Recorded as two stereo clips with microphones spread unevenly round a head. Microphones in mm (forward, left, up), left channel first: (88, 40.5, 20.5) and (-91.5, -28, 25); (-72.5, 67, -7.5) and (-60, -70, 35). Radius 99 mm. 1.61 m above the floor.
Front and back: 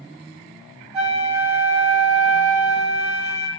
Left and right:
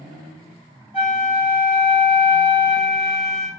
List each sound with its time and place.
0.9 s a flute: 155° left, 1.2 m